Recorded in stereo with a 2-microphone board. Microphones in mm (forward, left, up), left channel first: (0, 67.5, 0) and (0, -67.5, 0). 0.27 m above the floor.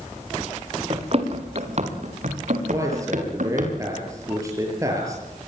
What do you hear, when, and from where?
0.9 s running footsteps: 45° right (ahead or behind), 4.5 m; by 3.7 s 70° right (ahead or behind), 7 m
2.7 s a man speaking: 25° right (ahead or behind), 7 m